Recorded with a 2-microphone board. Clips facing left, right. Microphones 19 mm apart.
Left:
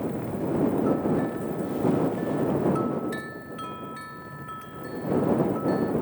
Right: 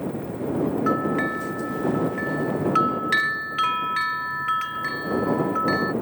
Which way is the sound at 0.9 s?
65° right (ahead or behind).